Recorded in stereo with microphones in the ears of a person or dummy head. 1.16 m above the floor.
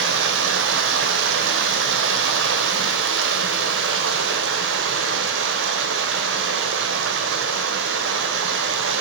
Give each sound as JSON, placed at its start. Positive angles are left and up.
{"t": 0.0, "sound": "running water", "side_deg": -75, "distance_m": 2.0}